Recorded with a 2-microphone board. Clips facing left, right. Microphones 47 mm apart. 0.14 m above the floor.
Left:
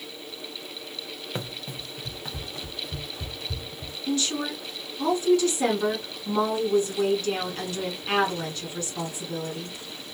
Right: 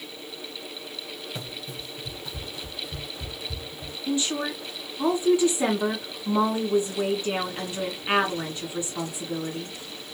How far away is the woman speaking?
About 1.6 m.